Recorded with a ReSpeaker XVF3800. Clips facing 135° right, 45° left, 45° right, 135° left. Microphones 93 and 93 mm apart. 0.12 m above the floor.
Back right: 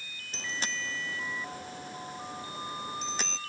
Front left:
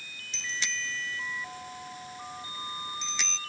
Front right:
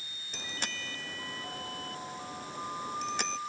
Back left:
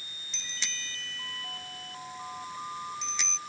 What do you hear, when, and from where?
0.3 s a bicycle bell: 85° right